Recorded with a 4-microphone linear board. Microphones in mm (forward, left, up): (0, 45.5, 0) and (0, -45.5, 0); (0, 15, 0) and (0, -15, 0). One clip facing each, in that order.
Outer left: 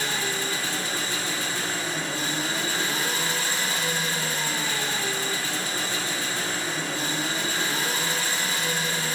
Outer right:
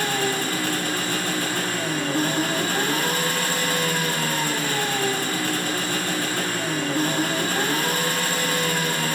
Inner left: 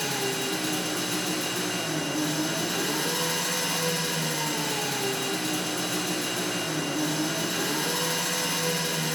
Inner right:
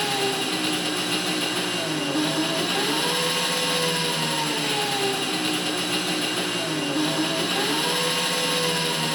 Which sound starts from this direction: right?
An engine running, at 0.0 s.